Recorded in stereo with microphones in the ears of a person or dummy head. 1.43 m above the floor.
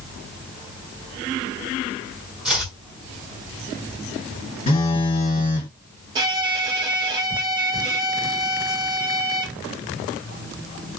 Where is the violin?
25° right (ahead or behind), 0.9 m.